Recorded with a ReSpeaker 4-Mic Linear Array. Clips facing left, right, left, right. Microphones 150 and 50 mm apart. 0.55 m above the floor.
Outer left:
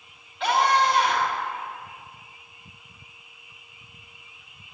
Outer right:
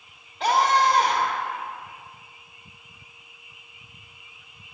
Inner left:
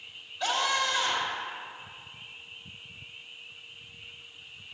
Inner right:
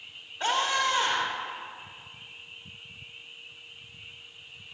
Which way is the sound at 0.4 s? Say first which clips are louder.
Outer right 1 dB, inner right 2 dB; 40° right (ahead or behind).